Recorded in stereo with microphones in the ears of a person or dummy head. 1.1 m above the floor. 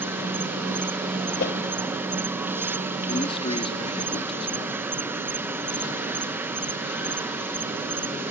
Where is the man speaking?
30° left (ahead or behind).